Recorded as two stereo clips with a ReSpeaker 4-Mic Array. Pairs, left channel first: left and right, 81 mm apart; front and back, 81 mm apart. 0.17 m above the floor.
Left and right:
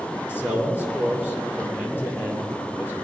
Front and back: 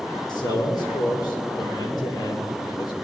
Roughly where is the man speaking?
Ahead left.